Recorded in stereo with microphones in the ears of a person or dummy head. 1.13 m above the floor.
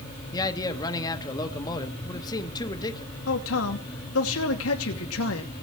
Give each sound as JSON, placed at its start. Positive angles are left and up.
{"t": 0.3, "sound": "a man speaking", "side_deg": 25, "distance_m": 1.6}
{"t": 3.3, "sound": "a man speaking", "side_deg": 75, "distance_m": 2.5}